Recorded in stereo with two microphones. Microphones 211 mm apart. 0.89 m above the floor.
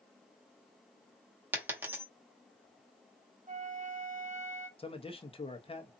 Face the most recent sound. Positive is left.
turn(degrees=25)  # may be behind; listen again after turning